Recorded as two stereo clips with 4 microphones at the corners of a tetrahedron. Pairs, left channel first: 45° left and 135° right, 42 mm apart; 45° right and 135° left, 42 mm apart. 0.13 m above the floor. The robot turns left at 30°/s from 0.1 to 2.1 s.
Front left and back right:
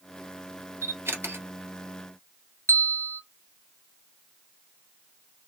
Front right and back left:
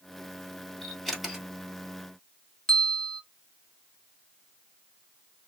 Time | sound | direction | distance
0.8 | a camera shutter | 130° right | 1.5 m
2.7 | a bell | 35° left | 0.6 m